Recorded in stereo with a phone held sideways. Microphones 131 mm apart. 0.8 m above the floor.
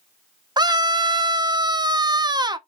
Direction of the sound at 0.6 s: 35° right (ahead or behind).